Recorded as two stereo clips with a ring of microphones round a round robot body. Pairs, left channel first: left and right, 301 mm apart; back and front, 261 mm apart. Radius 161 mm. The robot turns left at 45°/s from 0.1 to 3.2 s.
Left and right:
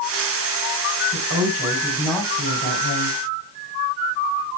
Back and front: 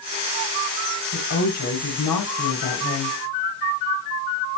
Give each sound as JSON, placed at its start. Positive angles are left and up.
{"t": 1.1, "sound": "a woman speaking", "azimuth_deg": -140, "distance_m": 3.5}